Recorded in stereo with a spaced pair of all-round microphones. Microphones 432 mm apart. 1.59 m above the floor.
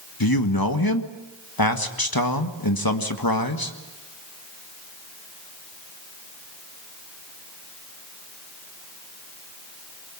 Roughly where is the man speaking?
Left.